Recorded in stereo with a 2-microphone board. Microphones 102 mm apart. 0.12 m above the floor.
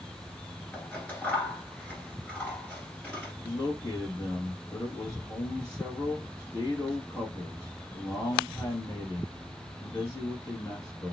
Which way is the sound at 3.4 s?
30° left (ahead or behind).